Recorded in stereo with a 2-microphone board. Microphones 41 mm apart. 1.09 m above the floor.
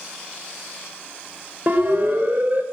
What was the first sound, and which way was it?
A siren, 45° right (ahead or behind).